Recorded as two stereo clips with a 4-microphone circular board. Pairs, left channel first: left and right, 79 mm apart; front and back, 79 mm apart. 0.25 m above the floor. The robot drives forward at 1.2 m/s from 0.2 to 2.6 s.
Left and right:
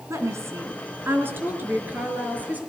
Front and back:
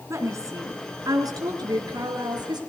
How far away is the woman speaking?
About 3 m.